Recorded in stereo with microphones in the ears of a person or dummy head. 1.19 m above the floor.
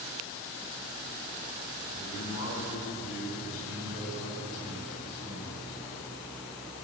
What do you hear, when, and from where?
1.9 s a man speaking: 80° left, 8.5 m; by 6.0 s 50° left (ahead or behind), 8.5 m